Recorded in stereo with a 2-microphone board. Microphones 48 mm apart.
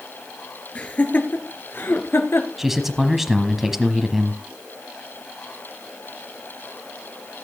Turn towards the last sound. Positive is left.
turn(degrees=-5)  # may be behind; listen again after turning